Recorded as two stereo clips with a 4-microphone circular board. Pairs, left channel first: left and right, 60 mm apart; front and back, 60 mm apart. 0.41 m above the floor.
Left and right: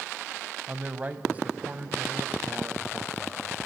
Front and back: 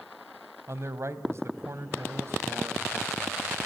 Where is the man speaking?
150° right, 3 m.